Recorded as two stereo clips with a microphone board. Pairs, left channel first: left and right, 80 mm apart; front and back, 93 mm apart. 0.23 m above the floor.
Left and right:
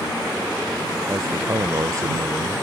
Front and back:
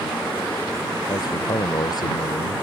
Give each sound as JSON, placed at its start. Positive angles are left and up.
{"t": 1.1, "sound": "a man speaking", "azimuth_deg": -45}